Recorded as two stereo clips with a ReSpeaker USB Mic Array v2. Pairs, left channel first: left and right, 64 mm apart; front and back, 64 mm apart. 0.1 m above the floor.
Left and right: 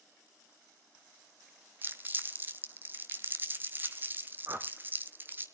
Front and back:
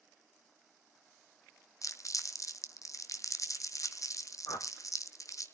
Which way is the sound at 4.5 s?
35° right.